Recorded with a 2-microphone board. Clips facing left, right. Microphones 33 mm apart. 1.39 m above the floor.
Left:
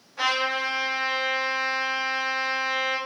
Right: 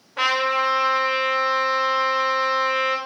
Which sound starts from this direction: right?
A trumpet, at 0.2 s.